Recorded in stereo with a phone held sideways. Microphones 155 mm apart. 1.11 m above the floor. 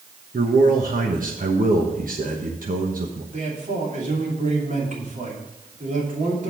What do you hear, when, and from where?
0.3 s a man speaking: 65° right (ahead or behind), 1.1 m
3.3 s a man speaking: 55° right (ahead or behind), 2.5 m